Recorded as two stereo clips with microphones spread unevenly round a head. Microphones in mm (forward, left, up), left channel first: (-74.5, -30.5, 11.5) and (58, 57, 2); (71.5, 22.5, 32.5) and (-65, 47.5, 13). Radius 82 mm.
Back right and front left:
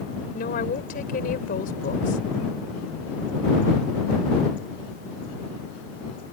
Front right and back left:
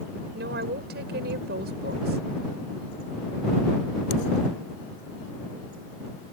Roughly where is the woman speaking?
Behind.